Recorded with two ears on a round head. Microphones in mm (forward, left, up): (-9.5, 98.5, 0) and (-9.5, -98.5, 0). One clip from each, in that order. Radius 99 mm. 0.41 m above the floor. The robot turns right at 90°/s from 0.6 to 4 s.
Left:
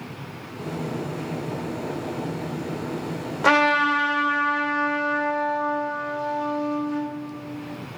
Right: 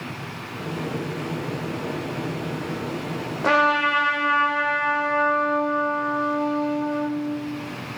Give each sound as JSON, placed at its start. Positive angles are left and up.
{"t": 3.4, "sound": "a trumpet", "azimuth_deg": 110, "distance_m": 1.4}